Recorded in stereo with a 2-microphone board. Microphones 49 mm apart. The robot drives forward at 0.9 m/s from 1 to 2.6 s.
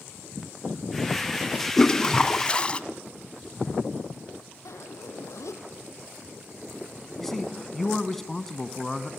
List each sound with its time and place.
1.8 s a toilet flushing: 15° left (ahead or behind), 1.5 m; by 2.8 s 20° left (ahead or behind), 1.1 m
4.7 s a zipper: 80° left, 3 m
7.2 s a man speaking: 5° left (ahead or behind), 1.5 m